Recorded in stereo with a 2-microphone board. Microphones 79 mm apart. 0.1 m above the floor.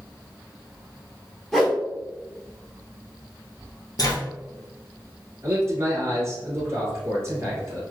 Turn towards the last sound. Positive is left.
turn(degrees=-35)  # may be behind; listen again after turning